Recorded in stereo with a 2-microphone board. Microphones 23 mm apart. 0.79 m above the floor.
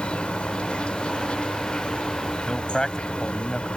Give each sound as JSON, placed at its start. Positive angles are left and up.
{"t": 0.0, "sound": "an insect", "side_deg": 60}
{"t": 2.5, "sound": "a man speaking", "side_deg": 25}